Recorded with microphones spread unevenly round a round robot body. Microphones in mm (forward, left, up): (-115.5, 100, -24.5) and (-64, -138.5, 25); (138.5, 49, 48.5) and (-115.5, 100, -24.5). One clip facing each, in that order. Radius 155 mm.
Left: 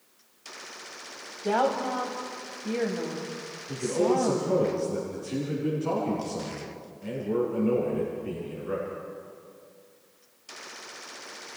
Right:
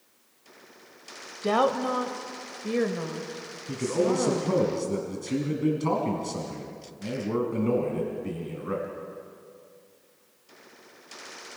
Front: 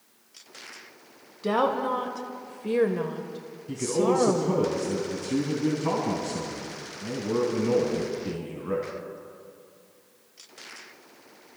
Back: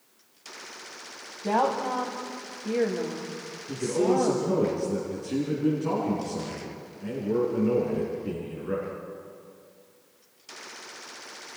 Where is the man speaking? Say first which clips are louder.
Even, even; 70° right, 3 m.